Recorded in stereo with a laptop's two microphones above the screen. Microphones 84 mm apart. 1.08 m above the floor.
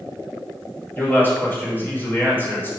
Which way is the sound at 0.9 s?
25° left (ahead or behind).